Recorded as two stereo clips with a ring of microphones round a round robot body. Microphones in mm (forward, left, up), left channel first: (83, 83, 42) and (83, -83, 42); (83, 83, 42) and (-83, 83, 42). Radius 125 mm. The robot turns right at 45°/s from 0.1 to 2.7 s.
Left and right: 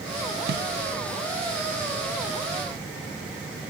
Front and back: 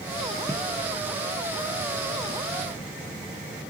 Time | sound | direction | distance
0.5 | a snare drum | 80° right | 1.3 m